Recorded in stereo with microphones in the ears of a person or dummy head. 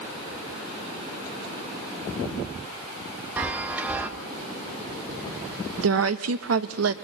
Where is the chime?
15° right (ahead or behind), 1.2 m.